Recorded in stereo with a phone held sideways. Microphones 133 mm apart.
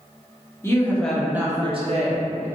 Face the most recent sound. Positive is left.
turn(degrees=-70)  # may be behind; listen again after turning